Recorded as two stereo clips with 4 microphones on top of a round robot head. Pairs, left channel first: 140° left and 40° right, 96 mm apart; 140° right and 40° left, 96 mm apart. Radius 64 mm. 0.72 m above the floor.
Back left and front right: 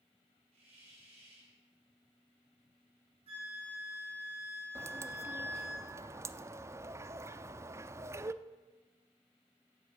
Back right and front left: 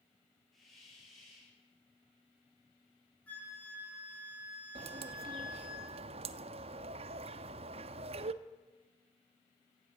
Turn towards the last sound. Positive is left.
turn(degrees=25)